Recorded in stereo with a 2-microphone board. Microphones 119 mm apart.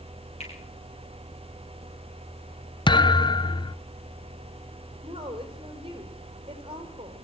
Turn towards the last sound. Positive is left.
turn(degrees=-45)  # may be behind; listen again after turning